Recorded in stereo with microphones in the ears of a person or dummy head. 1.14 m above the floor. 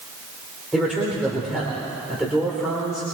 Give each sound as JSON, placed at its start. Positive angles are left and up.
{"t": 0.7, "sound": "a man speaking", "side_deg": 0, "distance_m": 3.5}